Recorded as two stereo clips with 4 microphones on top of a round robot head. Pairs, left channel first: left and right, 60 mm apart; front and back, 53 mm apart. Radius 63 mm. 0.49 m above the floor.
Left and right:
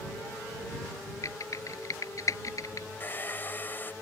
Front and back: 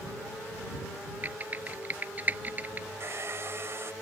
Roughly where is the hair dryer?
Behind left.